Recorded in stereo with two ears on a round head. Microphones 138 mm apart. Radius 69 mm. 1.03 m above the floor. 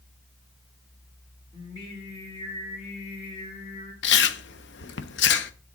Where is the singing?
35° left (ahead or behind), 4 m.